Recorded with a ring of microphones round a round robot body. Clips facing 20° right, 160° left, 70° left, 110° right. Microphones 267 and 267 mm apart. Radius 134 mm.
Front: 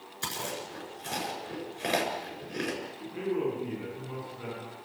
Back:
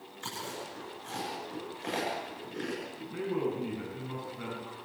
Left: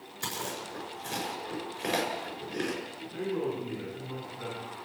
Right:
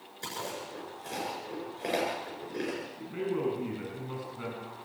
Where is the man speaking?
145° right, 8 m.